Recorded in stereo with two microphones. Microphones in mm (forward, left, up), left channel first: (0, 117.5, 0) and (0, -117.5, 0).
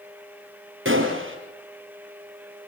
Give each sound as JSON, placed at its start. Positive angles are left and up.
{"t": 0.8, "sound": "a gunshot", "side_deg": -60, "distance_m": 4.0}